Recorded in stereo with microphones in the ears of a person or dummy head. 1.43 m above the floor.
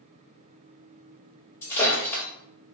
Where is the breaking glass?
15° left (ahead or behind), 1.7 m.